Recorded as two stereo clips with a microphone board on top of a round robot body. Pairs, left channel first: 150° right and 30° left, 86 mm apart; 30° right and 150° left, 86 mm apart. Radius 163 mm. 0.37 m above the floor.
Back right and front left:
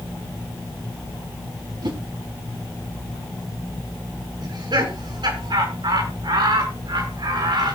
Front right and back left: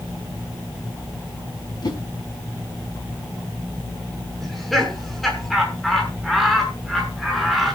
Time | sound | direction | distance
1.8 | a whoosh | 5° left | 4 m
4.4 | laughter | 60° left | 6.5 m